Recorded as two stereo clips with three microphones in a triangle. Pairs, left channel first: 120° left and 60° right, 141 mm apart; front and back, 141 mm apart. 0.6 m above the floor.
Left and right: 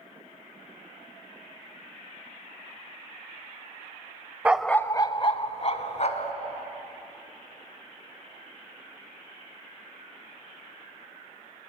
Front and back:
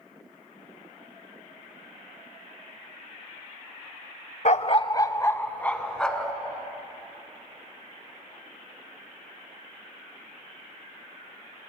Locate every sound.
4.5 s a dog barking: 15° left, 0.5 m; by 6.3 s 85° left, 1.6 m